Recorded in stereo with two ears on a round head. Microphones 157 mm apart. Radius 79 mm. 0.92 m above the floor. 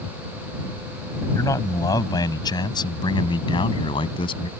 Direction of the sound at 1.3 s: 20° left (ahead or behind).